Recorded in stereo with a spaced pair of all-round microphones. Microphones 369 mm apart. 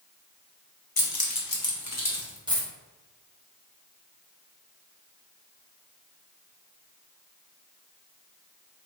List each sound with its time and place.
1.0 s keys jangling: 70° left (ahead or behind), 0.9 m; by 2.4 s 35° left (ahead or behind), 1.4 m
2.5 s a dropped coin: 10° right (ahead or behind), 1.2 m